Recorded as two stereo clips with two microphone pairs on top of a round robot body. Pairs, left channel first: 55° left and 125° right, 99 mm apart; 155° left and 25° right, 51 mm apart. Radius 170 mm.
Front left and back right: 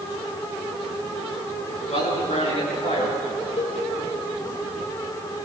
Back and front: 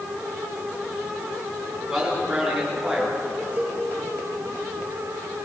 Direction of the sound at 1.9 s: 55° left.